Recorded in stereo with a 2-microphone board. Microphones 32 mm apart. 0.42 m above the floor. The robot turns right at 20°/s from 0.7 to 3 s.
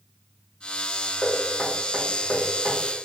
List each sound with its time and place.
1.2 s knocking: 60° left (ahead or behind), 1.5 m; by 2.8 s 50° left (ahead or behind), 1.5 m